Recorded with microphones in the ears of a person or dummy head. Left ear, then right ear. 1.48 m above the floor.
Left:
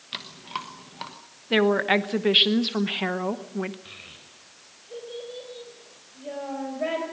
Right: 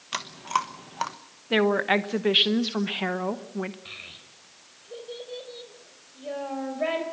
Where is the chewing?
40° right (ahead or behind), 1.1 m.